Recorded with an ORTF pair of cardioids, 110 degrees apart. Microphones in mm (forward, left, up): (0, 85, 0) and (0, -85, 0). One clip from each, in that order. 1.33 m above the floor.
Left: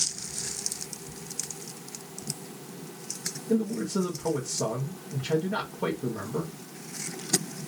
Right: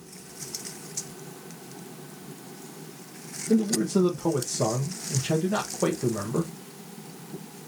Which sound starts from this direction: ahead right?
A man speaking, at 3.5 s.